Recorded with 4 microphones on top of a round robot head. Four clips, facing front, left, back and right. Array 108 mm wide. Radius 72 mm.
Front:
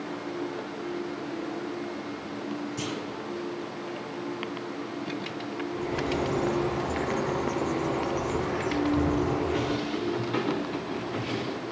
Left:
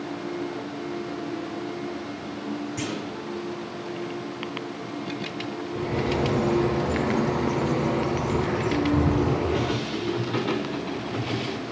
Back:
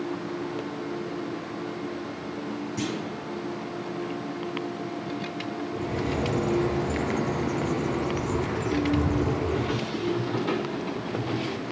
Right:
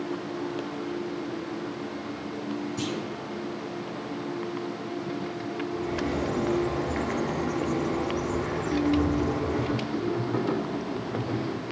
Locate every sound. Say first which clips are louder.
2.8 s a clunk: even, back 3 dB; 140° left, 5 m
5.8 s a bird: left 5 dB, even; 115° left, 3 m